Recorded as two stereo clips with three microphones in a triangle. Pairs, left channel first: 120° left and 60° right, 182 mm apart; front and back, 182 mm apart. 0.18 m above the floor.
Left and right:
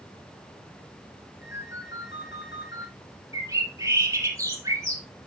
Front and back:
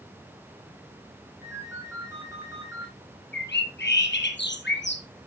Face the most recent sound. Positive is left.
turn(degrees=15)